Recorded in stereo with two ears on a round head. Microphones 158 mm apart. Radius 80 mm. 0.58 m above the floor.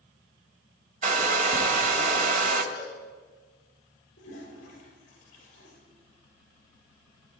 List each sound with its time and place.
1.0 s a hair dryer: 50° right (ahead or behind), 1.3 m
2.7 s a cowbell: 60° left (ahead or behind), 6 m
4.2 s a toilet flushing: 50° left (ahead or behind), 7.5 m